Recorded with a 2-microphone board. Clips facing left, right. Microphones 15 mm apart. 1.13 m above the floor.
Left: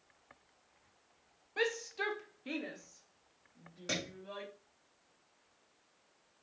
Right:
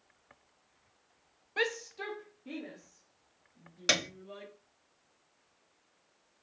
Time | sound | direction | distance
1.6 | a shout | 20° right (ahead or behind) | 0.7 m
3.9 | a piano | 60° right (ahead or behind) | 0.8 m